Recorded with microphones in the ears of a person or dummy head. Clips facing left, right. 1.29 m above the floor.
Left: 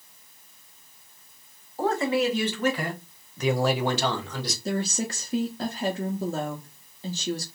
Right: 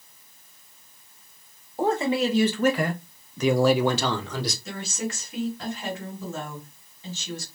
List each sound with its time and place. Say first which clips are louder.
1.8 s a man speaking: right 1 dB; 15° right (ahead or behind), 1.0 m; by 4.5 s 60° right (ahead or behind), 0.9 m
4.7 s a woman speaking: left 4 dB; 25° left (ahead or behind), 0.5 m